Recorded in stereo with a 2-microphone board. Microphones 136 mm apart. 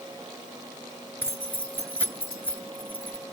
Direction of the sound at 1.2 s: 15° left (ahead or behind).